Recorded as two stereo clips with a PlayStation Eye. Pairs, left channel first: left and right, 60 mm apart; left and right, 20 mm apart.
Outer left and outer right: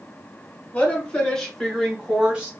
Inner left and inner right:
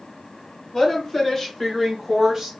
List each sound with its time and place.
0.7 s a woman speaking: 25° left (ahead or behind), 1.8 m; by 2.5 s 25° right (ahead or behind), 1.5 m